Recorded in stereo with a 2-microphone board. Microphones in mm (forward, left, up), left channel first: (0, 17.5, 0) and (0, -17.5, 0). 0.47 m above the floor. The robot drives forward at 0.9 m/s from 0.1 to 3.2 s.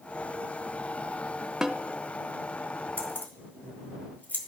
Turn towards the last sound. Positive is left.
turn(degrees=60)  # may be behind; listen again after turning